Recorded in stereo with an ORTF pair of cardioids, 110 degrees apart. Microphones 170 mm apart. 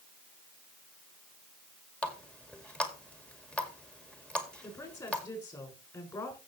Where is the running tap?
5° left, 2 m.